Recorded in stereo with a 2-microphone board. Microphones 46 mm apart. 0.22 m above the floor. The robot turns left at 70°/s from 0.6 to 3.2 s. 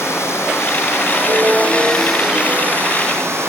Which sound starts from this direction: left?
Running water, at 0.0 s.